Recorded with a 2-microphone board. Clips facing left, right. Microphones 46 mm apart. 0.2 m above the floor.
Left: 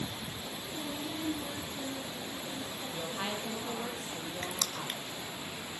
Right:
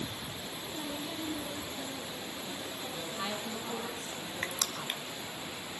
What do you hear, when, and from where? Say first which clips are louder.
0.7 s a woman speaking: left 1 dB; 15° left (ahead or behind), 7.5 m
2.9 s a woman speaking: left 1 dB; 30° left (ahead or behind), 5 m
4.4 s crushing: right 3 dB; 30° right (ahead or behind), 1.4 m